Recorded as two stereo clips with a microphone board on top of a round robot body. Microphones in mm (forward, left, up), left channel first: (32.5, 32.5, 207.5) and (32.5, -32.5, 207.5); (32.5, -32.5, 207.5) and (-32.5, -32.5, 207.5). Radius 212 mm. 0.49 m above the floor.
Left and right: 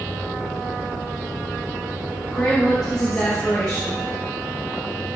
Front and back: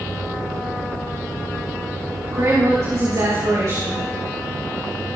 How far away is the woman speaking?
About 6 m.